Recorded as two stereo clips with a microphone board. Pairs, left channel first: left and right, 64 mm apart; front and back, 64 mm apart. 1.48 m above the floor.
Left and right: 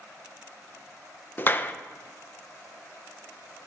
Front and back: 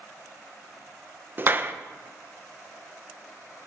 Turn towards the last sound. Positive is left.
turn(degrees=140)